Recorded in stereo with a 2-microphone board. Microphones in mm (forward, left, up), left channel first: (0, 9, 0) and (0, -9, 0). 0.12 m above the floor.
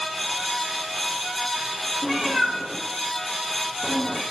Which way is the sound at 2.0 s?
10° right (ahead or behind).